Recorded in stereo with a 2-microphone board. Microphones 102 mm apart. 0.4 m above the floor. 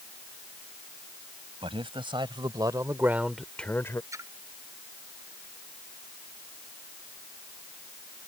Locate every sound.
1.6 s a man speaking: 65° right (ahead or behind); by 4.0 s 30° left (ahead or behind)
4.1 s a splash: 30° right (ahead or behind)